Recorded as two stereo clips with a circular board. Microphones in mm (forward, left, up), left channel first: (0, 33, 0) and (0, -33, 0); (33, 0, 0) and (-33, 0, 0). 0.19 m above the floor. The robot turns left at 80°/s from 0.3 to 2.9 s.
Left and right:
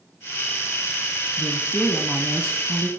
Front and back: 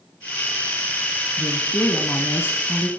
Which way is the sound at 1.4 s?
55° left.